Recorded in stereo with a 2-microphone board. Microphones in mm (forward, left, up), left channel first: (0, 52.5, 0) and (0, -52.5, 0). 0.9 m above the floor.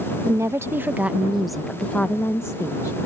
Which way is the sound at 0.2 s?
30° right (ahead or behind).